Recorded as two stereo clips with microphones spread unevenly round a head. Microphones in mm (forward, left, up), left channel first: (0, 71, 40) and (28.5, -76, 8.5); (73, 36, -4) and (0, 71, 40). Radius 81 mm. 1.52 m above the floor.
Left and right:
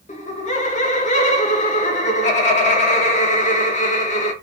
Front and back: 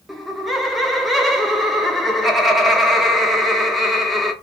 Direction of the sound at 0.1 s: 55° left.